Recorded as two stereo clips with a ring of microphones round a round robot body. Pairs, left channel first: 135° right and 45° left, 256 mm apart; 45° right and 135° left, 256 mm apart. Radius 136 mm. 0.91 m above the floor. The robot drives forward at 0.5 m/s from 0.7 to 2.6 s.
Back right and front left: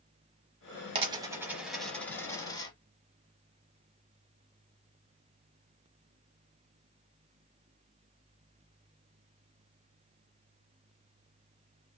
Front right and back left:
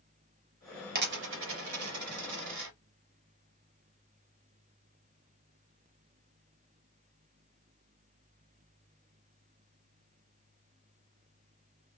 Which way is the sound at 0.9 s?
105° left.